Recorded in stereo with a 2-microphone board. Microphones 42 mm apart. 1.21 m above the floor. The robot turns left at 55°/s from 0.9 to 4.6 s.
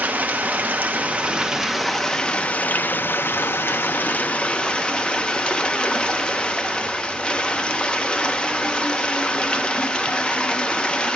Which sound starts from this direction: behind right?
Running water, at 0.0 s.